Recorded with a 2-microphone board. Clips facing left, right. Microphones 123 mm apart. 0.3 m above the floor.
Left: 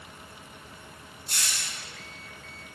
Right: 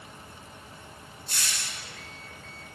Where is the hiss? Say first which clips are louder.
Even; 70° left (ahead or behind), 2.0 m.